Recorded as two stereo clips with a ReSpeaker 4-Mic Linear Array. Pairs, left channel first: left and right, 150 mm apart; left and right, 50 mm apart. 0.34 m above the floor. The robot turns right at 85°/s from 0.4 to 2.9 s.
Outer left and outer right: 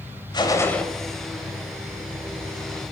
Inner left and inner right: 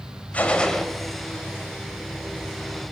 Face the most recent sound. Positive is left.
turn(degrees=-10)